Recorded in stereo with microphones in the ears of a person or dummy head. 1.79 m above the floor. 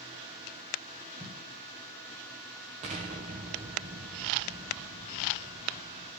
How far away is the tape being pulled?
About 1.7 m.